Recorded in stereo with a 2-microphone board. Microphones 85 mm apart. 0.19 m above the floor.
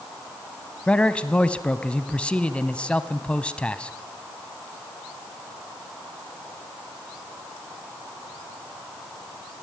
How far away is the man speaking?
About 1.0 m.